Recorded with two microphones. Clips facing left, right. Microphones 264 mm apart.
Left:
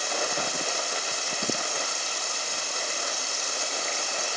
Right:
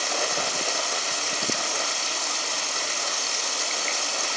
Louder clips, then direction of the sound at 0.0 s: Right 1 dB; 85° right.